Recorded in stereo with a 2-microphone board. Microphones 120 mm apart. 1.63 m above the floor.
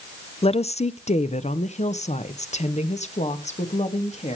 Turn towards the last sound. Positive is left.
turn(degrees=70)  # may be behind; listen again after turning